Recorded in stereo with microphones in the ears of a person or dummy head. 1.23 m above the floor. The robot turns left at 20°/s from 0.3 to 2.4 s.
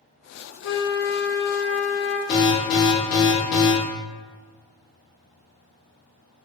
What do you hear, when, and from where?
0.6 s a flute: 70° left, 0.6 m; by 2.2 s 40° left, 0.6 m
2.3 s an alarm: 55° left (ahead or behind), 1.1 m; by 3.7 s 50° left (ahead or behind), 1.1 m